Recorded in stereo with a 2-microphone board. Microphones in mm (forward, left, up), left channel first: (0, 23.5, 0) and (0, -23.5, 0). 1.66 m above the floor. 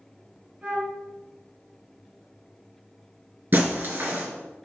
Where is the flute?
30° right (ahead or behind), 3.5 m.